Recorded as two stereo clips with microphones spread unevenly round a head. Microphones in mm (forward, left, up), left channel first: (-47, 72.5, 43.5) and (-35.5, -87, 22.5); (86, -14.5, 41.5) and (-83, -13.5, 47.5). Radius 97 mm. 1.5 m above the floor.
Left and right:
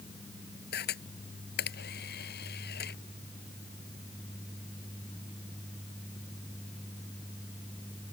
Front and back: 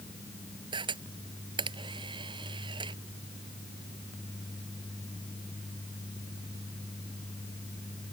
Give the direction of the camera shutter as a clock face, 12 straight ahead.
8 o'clock.